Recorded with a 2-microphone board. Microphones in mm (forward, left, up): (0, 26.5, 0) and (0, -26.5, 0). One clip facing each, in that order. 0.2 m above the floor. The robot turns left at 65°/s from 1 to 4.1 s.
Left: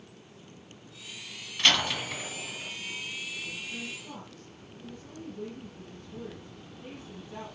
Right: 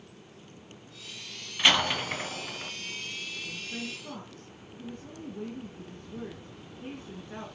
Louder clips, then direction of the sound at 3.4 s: Even; 50° right.